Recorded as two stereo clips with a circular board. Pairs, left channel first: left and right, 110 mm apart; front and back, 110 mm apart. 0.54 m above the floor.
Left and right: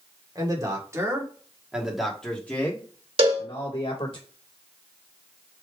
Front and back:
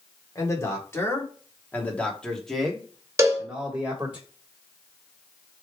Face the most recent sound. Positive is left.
turn(degrees=-120)